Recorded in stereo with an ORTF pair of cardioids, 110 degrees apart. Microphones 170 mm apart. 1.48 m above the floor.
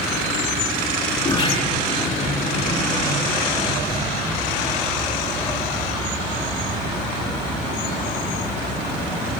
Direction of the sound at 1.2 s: 35° left.